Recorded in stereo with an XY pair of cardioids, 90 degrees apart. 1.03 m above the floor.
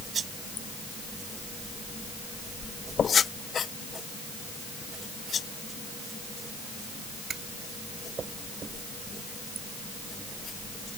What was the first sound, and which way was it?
Only background noise.